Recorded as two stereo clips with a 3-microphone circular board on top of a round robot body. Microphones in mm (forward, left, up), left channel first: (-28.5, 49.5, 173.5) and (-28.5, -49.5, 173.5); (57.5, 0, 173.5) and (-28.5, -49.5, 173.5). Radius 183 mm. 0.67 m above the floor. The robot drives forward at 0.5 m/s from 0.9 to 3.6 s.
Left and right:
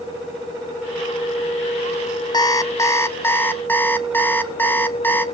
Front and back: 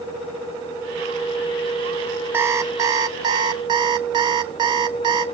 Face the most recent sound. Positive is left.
turn(degrees=160)